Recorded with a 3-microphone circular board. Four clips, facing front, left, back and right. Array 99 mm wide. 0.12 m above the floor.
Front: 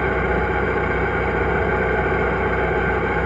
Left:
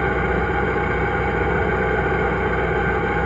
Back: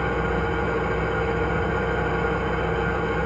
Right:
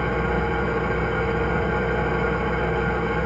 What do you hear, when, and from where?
0.0 s an engine running: 35° left, 0.8 m